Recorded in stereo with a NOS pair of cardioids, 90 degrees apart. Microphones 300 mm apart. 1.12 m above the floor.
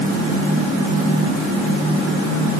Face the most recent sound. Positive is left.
No sound to turn to.